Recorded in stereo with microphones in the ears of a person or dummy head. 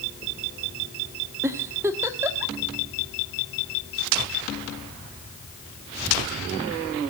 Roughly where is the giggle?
Centre.